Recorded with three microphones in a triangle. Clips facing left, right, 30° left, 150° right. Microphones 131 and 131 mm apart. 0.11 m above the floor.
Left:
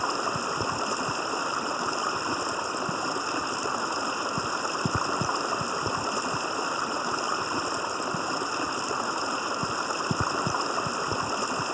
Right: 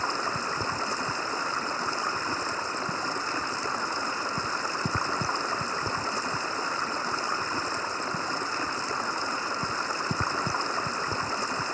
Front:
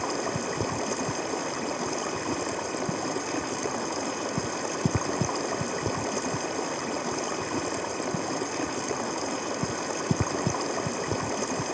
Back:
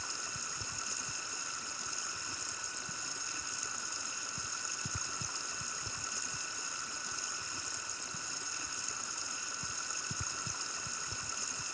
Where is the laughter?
No laughter in this recording.